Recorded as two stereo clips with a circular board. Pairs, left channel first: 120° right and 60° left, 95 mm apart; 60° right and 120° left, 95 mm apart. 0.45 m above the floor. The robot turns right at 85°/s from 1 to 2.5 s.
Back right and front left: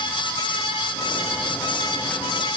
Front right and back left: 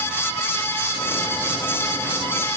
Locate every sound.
Only background noise.